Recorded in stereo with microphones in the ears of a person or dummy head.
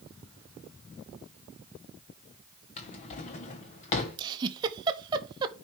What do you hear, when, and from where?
2.8 s a drawer: 25° left (ahead or behind), 0.9 m
4.2 s a giggle: 20° right (ahead or behind), 0.8 m